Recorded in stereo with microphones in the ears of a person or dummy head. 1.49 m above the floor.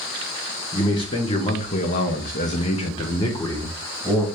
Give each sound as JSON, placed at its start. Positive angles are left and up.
{"t": 0.7, "sound": "a man speaking", "side_deg": 25, "distance_m": 0.9}